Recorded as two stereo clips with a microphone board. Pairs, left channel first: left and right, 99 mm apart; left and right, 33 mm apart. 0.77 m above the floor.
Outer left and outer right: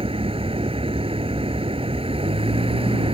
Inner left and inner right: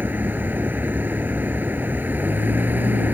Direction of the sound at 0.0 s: 70° right (ahead or behind).